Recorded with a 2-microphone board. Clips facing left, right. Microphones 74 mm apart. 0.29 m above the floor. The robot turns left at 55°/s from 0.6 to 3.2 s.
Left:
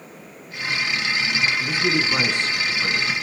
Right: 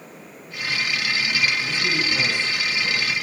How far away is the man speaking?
About 3.5 m.